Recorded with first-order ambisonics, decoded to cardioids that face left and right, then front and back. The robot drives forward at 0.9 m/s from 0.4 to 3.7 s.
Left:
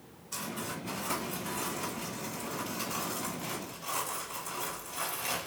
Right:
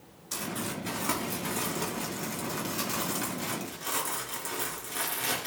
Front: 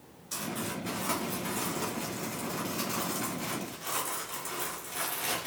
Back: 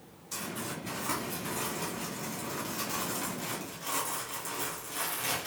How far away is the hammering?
No hammering in this recording.